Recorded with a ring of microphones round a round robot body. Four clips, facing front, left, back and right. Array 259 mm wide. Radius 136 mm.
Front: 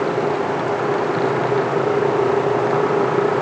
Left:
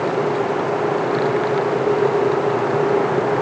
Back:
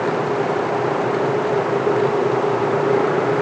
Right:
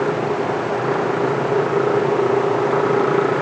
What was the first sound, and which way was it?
Only background noise.